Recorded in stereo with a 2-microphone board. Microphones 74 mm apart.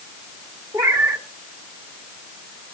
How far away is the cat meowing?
About 1.7 m.